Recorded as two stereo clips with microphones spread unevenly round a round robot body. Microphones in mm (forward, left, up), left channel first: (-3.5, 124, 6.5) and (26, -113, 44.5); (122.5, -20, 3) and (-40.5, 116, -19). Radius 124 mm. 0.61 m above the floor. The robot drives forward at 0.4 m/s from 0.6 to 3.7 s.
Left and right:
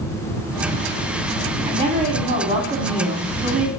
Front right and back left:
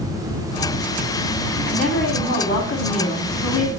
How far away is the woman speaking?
About 1.7 m.